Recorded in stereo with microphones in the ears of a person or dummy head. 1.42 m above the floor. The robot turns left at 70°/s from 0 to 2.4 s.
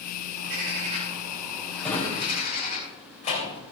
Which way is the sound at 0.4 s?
90° right.